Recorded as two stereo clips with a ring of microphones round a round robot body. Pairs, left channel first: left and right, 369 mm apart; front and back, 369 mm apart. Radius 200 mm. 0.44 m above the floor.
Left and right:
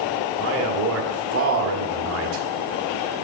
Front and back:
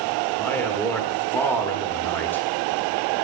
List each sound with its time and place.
0.4 s a man speaking: 80° right, 1.3 m